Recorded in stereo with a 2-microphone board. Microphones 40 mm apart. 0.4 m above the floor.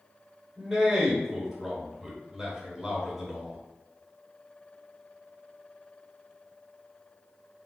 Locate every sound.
0.6 s a man speaking: centre (ahead or behind), 1.3 m